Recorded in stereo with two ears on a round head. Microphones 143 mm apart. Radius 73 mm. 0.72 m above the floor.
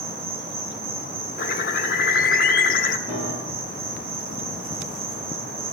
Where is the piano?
40° right (ahead or behind), 8 m.